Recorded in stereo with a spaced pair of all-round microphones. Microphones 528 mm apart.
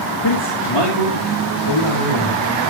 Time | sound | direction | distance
0.2 | a man speaking | 45° left (ahead or behind) | 2.5 m